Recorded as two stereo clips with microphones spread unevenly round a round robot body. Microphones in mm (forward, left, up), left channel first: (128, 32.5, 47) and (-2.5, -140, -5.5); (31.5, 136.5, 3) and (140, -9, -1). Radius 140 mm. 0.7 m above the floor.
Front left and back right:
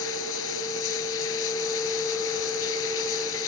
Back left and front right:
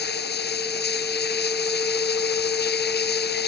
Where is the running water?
100° left.